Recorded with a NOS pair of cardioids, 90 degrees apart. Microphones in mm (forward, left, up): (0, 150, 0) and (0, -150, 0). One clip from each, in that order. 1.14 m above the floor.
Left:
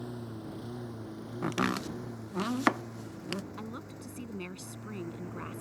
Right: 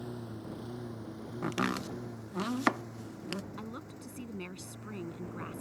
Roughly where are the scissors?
I don't hear scissors.